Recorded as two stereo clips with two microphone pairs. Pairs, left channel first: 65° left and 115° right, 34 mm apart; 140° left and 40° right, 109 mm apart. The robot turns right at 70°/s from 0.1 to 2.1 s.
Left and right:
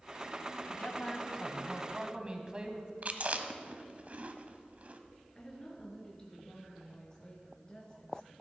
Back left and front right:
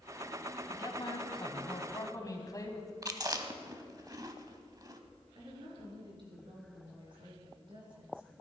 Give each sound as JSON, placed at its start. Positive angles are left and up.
{"t": 0.7, "sound": "a man speaking", "azimuth_deg": 90, "distance_m": 1.6}
{"t": 3.0, "sound": "chewing", "azimuth_deg": -85, "distance_m": 0.8}
{"t": 5.3, "sound": "a woman speaking", "azimuth_deg": 0, "distance_m": 3.5}